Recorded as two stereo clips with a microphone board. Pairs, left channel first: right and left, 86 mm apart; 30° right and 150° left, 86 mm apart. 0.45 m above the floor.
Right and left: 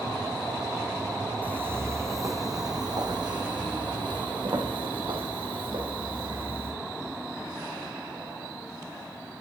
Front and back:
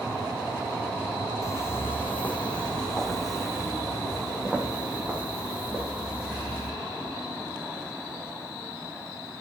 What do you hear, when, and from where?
1.4 s footsteps: 20° left, 1.3 m; by 6.7 s 85° left, 3.5 m